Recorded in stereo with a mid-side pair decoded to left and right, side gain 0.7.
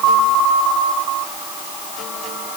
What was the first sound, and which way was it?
Only background noise.